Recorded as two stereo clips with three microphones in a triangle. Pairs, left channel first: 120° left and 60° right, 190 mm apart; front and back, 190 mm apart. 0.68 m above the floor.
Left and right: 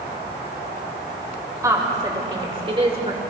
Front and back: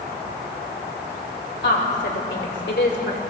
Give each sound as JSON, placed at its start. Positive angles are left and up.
{"t": 1.6, "sound": "a woman speaking", "azimuth_deg": 10, "distance_m": 2.5}